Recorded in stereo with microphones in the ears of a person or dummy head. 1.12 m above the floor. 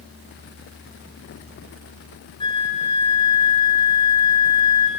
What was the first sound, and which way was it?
A flute, 25° left (ahead or behind).